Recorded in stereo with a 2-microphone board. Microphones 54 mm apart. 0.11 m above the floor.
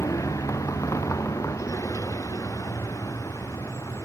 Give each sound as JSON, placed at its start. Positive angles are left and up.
{"t": 0.0, "sound": "a vehicle", "side_deg": 85}